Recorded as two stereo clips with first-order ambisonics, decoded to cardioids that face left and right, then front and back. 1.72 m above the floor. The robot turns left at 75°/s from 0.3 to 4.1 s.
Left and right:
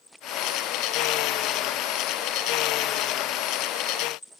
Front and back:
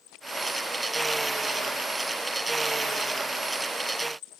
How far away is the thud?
I don't hear a thud.